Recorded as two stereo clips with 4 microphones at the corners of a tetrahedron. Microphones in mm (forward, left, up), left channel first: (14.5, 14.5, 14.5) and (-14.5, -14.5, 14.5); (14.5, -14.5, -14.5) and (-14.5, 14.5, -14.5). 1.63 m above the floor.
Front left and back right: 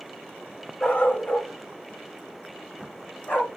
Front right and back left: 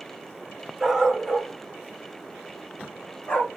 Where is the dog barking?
65° left, 1.6 m; by 3.5 s straight ahead, 2.5 m.